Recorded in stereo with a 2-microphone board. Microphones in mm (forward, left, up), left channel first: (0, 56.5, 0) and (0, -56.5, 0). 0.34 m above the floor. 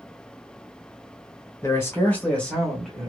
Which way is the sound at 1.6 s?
25° left (ahead or behind).